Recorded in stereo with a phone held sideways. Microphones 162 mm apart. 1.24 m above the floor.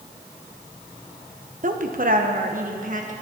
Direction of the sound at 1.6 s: 55° right (ahead or behind).